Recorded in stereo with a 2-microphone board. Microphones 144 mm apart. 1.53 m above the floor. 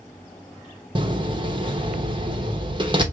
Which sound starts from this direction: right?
A door slam, at 0.9 s.